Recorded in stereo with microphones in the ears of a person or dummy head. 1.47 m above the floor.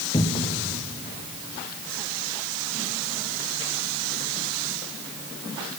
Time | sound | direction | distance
0.1 | a cupboard door | 25° left (ahead or behind) | 1.2 m